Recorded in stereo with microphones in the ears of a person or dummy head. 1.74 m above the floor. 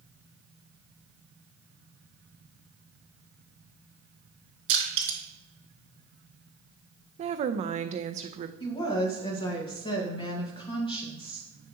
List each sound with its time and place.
4.7 s crushing: 65° right (ahead or behind), 3 m
7.2 s a woman speaking: 40° right (ahead or behind), 0.5 m
8.6 s a woman speaking: 30° left (ahead or behind), 1.5 m